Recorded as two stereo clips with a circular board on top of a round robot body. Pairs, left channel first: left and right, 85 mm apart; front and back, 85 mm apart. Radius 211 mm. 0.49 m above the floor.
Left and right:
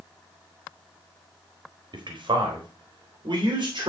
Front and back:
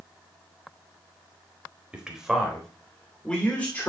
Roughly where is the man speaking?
Right.